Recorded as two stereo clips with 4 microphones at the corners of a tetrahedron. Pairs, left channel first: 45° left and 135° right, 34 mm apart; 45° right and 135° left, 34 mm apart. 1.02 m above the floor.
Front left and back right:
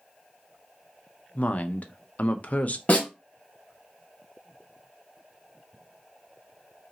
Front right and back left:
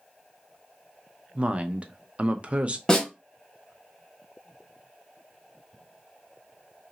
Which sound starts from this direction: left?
A woman speaking, at 1.4 s.